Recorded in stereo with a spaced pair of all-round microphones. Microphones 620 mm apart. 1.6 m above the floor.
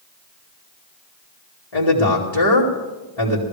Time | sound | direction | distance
1.7 | a man speaking | 80° left | 3 m